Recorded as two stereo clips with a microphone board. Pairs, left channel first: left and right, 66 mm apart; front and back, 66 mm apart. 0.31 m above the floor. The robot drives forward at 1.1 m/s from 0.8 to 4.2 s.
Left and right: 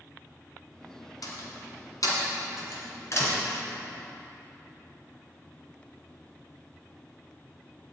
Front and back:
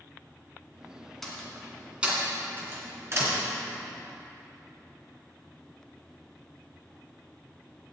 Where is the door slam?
85° left, 2.5 m; by 3.3 s 135° left, 3 m.